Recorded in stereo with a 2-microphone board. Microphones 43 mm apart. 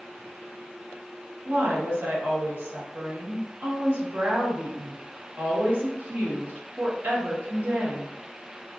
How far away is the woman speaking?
About 1.0 m.